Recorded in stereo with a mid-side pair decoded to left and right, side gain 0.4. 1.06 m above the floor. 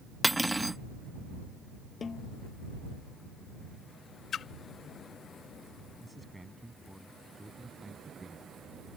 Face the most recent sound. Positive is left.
turn(degrees=-10)